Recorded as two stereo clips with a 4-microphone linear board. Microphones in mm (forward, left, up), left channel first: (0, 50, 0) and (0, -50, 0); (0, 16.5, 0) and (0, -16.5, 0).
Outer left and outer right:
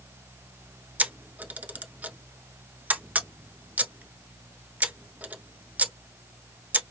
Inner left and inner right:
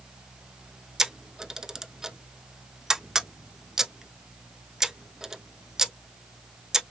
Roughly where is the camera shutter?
Centre.